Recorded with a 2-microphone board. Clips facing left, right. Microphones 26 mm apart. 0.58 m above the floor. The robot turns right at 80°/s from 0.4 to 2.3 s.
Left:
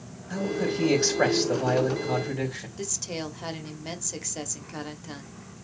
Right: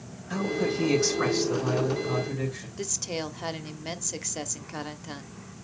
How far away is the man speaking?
About 3.5 m.